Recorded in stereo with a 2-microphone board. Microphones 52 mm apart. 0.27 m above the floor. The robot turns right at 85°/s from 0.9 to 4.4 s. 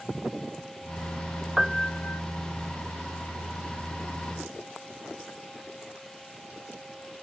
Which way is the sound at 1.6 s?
10° right.